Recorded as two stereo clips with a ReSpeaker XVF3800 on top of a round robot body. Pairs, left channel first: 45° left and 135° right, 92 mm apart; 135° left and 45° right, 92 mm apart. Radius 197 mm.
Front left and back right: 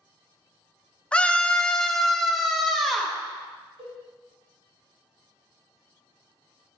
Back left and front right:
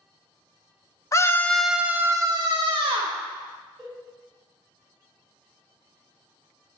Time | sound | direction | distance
1.1 | a scream | 115° left | 0.8 m
3.8 | a cowbell | 130° right | 3.5 m